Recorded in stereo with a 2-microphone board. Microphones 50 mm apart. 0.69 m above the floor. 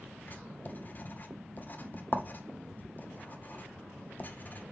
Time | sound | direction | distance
0.3 | writing | 35° left (ahead or behind) | 0.8 m